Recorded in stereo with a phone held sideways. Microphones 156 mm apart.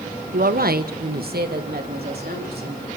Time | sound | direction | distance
0.3 | a woman speaking | 65° right (ahead or behind) | 0.9 m